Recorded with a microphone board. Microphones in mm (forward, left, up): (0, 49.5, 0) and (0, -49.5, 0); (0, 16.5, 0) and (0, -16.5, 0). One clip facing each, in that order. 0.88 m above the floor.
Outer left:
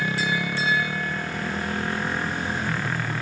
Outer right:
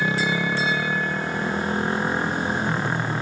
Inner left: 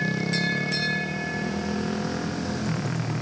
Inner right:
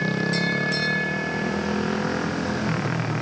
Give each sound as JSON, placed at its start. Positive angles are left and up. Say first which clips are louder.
{"t": 0.0, "sound": "a motorcycle", "louder": "outer right 3 dB, inner right 2 dB", "side_deg": -25}